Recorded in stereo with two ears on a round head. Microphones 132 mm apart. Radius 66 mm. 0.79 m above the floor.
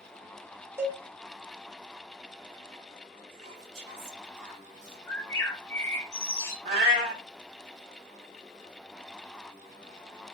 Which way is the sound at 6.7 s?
45° right (ahead or behind).